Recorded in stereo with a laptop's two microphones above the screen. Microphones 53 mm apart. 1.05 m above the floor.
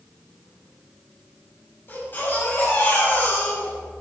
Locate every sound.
1.9 s a baby crying: 40° left (ahead or behind), 5.5 m